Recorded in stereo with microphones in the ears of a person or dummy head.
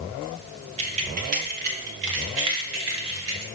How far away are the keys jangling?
About 2 m.